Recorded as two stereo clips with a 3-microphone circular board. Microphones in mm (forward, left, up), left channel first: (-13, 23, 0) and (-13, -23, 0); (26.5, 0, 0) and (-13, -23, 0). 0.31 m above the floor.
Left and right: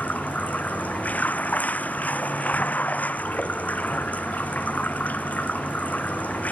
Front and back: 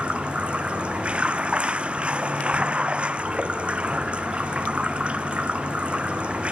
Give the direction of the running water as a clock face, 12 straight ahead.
7 o'clock.